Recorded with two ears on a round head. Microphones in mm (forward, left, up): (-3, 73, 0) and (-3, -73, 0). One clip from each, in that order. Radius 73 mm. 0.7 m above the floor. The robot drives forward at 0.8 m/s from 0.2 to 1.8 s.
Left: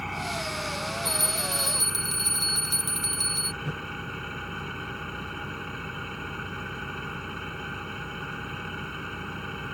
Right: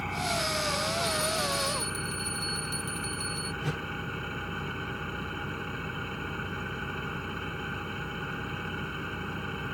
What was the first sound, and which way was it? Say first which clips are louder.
An engine running: right 1 dB; 15° left (ahead or behind).